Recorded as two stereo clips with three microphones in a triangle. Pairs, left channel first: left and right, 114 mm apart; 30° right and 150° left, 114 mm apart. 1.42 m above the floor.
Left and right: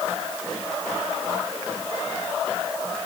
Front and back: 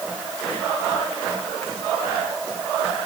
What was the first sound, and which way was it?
Only background noise.